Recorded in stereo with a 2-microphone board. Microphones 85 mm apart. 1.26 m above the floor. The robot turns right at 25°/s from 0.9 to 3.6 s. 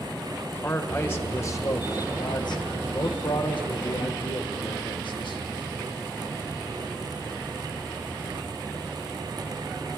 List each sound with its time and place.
0.5 s a man speaking: 25° left, 1.2 m; by 5.4 s 90° left, 1.2 m